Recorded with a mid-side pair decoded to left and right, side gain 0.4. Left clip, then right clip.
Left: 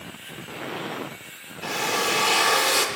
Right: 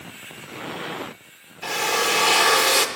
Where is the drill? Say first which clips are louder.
Right 3 dB; 25° right, 1.0 m.